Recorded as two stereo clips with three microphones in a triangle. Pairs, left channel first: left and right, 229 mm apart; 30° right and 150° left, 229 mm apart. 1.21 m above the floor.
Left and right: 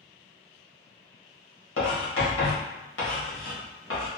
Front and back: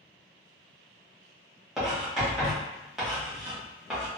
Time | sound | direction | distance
1.8 | writing | 60° left | 1.4 m